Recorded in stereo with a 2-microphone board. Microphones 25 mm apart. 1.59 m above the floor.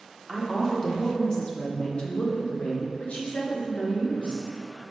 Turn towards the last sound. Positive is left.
turn(degrees=85)